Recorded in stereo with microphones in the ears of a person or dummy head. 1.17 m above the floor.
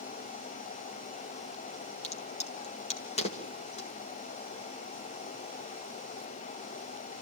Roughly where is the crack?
Left.